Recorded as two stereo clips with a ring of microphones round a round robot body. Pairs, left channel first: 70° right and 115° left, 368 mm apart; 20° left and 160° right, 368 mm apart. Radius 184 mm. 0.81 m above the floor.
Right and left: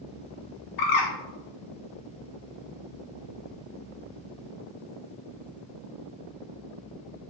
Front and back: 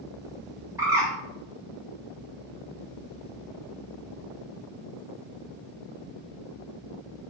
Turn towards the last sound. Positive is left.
turn(degrees=-75)